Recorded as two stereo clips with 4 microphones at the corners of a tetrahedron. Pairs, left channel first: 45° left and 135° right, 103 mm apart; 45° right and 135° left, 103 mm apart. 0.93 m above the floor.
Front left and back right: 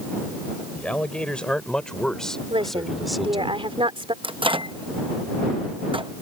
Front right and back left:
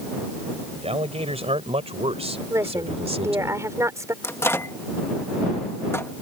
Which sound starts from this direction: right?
A microwave, at 4.2 s.